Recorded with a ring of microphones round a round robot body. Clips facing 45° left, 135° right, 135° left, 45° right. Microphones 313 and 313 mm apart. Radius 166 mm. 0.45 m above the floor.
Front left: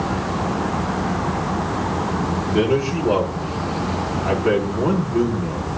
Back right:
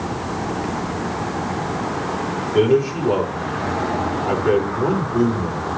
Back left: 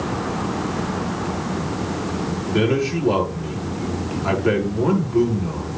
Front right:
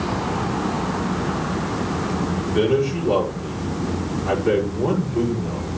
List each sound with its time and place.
2.5 s a man speaking: 115° left, 8.5 m